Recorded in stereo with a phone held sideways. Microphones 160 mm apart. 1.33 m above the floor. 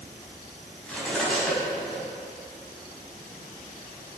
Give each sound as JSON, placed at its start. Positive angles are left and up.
{"t": 0.8, "sound": "cutlery clinking", "side_deg": 5, "distance_m": 5.0}